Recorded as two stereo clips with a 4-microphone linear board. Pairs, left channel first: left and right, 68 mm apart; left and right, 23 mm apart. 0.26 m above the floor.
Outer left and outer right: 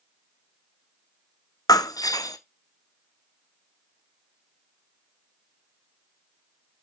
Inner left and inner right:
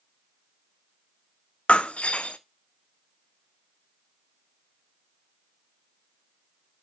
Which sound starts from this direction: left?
Breaking glass, at 1.7 s.